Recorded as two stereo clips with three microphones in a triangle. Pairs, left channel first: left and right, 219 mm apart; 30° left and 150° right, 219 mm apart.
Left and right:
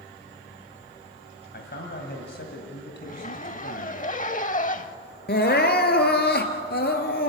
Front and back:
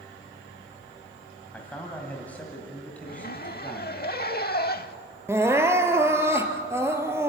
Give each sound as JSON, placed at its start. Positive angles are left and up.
{"t": 1.5, "sound": "a man speaking", "azimuth_deg": 110, "distance_m": 1.9}
{"t": 3.0, "sound": "a zipper", "azimuth_deg": 50, "distance_m": 0.7}
{"t": 5.3, "sound": "crying", "azimuth_deg": 135, "distance_m": 1.4}